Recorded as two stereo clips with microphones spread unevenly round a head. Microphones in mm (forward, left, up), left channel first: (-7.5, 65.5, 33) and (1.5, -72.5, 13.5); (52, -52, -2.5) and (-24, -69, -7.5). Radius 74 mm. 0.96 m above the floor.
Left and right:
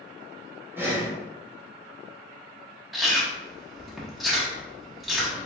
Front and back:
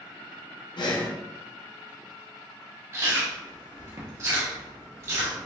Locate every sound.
0.8 s breathing: 10° right, 0.8 m
2.9 s chewing: 165° right, 0.9 m